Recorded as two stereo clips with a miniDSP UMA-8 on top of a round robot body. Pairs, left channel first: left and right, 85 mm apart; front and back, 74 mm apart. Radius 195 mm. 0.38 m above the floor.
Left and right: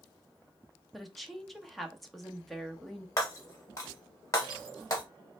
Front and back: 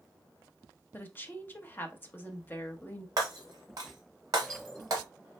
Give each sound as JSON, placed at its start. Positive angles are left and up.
{"t": 0.9, "sound": "a woman speaking", "azimuth_deg": 5, "distance_m": 1.2}
{"t": 3.2, "sound": "breaking glass", "azimuth_deg": 140, "distance_m": 0.7}